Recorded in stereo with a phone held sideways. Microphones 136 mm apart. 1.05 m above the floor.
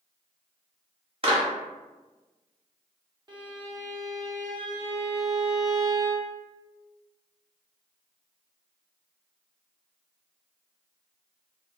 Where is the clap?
45° right (ahead or behind), 0.8 m.